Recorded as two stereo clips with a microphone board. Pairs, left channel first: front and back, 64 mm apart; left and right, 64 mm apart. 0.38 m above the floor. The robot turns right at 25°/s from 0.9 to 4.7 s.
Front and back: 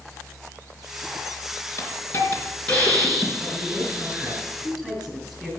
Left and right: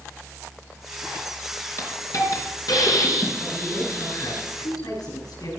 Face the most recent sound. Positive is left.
turn(degrees=95)